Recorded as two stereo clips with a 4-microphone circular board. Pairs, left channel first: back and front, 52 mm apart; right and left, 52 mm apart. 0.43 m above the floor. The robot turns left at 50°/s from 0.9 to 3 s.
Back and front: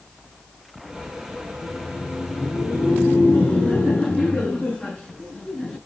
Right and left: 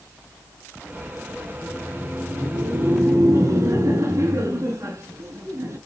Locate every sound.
1.5 s laughter: 170° right, 5.5 m; by 5.8 s 115° left, 5.5 m